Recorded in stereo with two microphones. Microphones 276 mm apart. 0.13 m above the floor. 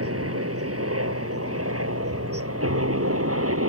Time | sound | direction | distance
0.0 | a helicopter | 60° right (ahead or behind) | ?